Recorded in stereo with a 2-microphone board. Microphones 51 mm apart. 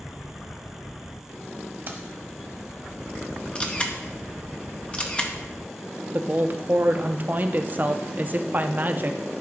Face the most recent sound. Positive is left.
turn(degrees=-40)  # may be behind; listen again after turning